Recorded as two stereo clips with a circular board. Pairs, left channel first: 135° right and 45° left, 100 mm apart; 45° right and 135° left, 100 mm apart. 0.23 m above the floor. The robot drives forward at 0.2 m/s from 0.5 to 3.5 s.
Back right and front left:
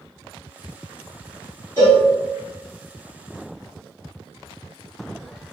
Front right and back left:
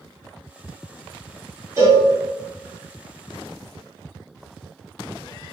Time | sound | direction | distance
1.8 | a cowbell | 175° left | 2.0 m